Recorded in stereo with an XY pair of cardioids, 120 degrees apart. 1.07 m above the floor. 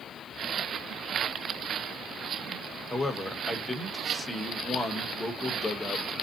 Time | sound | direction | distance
2.9 | a man speaking | 15° left | 0.9 m